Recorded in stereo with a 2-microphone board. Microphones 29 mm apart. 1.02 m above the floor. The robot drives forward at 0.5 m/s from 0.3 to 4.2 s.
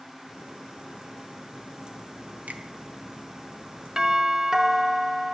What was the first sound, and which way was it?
A finger snap, 70° right (ahead or behind).